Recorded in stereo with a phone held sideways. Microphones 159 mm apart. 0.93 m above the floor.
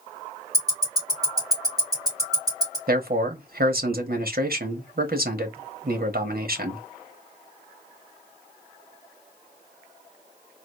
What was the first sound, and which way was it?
Ticking, 25° right (ahead or behind).